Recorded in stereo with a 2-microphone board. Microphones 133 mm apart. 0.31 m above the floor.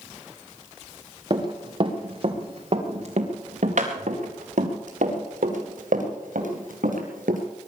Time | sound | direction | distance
1.3 | running footsteps | 35° right (ahead or behind) | 3.5 m